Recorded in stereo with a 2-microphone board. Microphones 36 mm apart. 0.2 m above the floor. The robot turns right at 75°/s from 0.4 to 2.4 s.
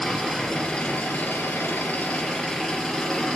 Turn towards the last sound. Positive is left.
turn(degrees=160)